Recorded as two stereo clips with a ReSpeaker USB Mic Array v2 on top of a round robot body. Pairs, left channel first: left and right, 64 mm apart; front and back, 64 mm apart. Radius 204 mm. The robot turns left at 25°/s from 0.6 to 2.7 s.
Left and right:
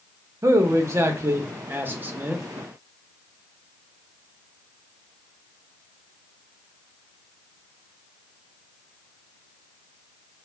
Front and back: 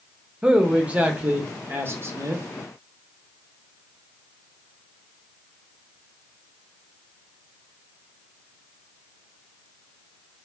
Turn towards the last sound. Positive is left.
turn(degrees=-160)